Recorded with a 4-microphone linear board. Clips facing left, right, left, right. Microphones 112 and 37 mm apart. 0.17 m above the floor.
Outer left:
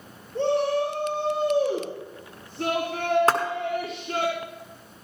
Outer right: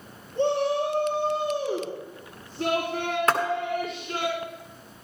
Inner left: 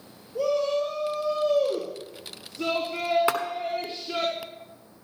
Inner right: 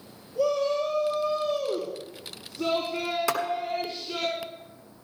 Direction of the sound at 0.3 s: 70° left (ahead or behind).